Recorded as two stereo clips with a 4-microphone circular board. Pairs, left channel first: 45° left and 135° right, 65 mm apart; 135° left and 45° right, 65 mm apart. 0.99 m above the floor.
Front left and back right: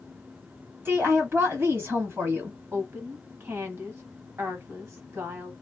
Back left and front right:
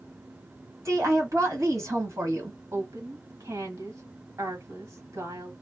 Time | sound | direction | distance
0.8 | a woman speaking | 85° right | 1.5 m
2.7 | a woman speaking | 80° right | 1.5 m